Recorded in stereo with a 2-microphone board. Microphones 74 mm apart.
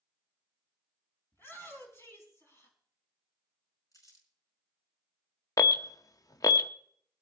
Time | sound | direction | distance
1.3 | a shout | 30° left (ahead or behind) | 5 m
3.9 | crumpling | 50° left (ahead or behind) | 4.5 m
5.6 | an alarm | 50° left (ahead or behind) | 0.6 m